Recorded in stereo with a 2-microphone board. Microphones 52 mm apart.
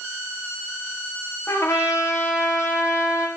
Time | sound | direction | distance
1.5 | a trumpet | 60° left (ahead or behind) | 7 m